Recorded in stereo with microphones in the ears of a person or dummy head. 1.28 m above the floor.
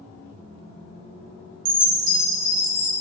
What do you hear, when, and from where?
1.6 s a chime: 65° right (ahead or behind), 1.7 m